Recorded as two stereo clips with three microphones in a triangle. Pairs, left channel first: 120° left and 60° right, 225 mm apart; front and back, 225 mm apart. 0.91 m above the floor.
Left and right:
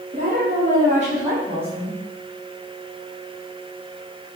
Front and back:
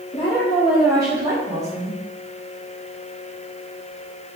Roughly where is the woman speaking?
Ahead right.